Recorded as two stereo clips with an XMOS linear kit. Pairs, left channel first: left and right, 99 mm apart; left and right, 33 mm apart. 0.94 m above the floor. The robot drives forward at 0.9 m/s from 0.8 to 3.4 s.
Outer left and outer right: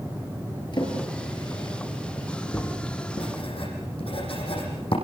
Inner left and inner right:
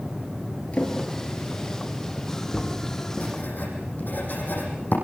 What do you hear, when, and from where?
0.7 s a drawer: 50° left (ahead or behind), 7 m; by 2.7 s 40° left (ahead or behind), 8 m
3.2 s writing: 75° left (ahead or behind), 7.5 m